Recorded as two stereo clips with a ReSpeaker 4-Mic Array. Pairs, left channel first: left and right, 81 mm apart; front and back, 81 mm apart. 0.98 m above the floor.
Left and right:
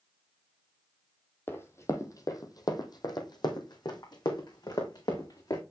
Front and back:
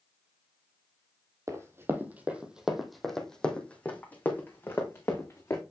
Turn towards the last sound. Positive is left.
turn(degrees=55)